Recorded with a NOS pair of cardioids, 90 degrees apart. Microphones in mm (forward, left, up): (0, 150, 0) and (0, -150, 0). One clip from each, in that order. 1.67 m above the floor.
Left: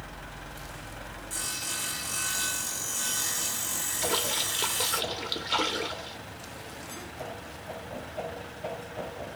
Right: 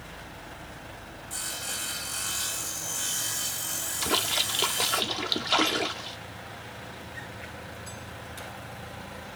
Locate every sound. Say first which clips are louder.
1.3 s sawing: even; 5° left, 0.8 m
4.0 s a splash: right 3 dB; 25° right, 0.6 m